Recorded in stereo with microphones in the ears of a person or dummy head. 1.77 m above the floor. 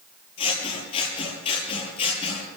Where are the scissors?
35° left (ahead or behind), 6 m.